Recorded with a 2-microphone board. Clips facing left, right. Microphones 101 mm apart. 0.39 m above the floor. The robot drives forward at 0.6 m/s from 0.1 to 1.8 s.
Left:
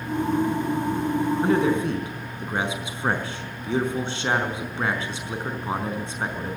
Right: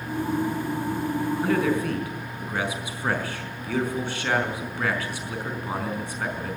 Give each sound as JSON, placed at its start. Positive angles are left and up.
{"t": 1.4, "sound": "a man speaking", "side_deg": 25, "distance_m": 4.5}